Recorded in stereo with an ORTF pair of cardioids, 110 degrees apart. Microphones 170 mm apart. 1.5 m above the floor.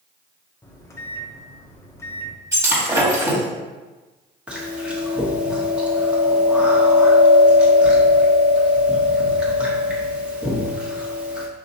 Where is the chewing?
5° right, 1.3 m.